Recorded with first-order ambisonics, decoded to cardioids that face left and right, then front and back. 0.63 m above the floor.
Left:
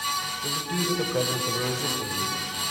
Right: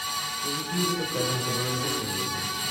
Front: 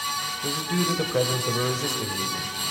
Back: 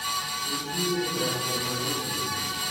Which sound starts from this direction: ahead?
A man speaking, at 0.4 s.